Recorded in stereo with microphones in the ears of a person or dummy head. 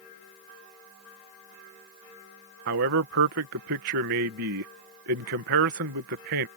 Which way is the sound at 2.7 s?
60° right (ahead or behind).